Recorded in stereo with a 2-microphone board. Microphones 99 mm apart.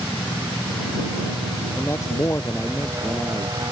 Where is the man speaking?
30° left (ahead or behind).